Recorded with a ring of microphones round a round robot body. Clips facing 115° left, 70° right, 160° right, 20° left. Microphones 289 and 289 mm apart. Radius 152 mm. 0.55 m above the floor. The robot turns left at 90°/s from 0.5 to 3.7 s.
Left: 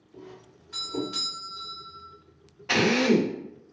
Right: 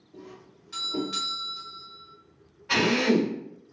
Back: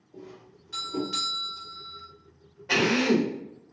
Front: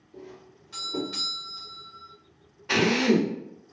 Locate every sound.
0.1 s a doorbell: 30° right, 1.5 m; by 2.1 s 175° right, 1.5 m
2.7 s a drill: 95° left, 0.9 m; by 3.4 s 35° left, 0.9 m